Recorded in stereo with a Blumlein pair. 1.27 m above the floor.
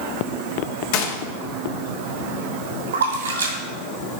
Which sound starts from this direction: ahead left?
A gunshot, at 0.9 s.